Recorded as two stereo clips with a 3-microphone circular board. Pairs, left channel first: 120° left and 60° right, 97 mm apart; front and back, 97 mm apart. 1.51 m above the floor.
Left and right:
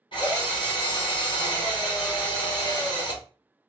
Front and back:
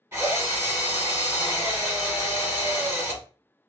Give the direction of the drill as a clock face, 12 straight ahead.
8 o'clock.